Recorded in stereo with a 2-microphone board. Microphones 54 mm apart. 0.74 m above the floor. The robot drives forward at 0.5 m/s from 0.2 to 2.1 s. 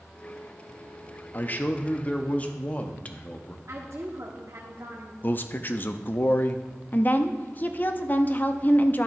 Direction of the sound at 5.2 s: 40° left (ahead or behind).